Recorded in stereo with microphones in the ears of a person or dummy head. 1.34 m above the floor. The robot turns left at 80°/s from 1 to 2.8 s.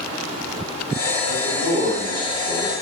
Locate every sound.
1.2 s a man speaking: 100° right, 1.7 m; by 2.7 s 145° left, 1.7 m